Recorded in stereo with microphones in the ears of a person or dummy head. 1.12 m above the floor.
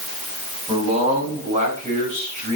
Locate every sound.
0.7 s a man speaking: 35° right (ahead or behind), 6.5 m; by 2.6 s 50° right (ahead or behind), 7 m